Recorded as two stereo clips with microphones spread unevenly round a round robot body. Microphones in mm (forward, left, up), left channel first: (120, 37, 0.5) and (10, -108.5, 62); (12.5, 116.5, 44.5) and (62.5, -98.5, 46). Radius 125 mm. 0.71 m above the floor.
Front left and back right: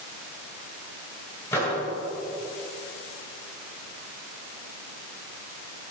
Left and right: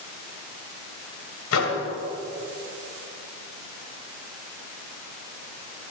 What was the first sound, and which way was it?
A microwave, 130° left.